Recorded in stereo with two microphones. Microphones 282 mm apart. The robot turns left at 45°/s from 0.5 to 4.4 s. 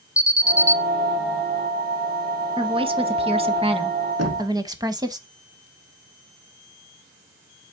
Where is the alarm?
10° left (ahead or behind), 0.8 m; by 0.8 s 5° left (ahead or behind), 0.8 m.